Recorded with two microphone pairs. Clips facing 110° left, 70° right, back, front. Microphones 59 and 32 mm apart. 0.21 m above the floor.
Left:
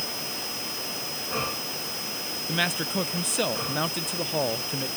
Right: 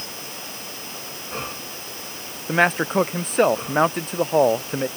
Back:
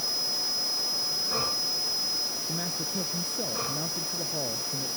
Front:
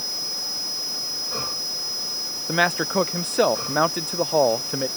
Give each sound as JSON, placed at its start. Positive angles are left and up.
{"t": 2.5, "sound": "a man speaking", "azimuth_deg": -20}